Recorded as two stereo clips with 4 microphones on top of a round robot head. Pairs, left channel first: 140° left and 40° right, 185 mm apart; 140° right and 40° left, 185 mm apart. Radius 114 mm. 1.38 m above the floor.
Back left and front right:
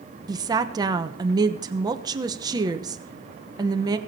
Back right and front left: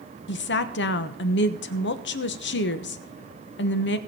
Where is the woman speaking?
110° right, 1.1 m.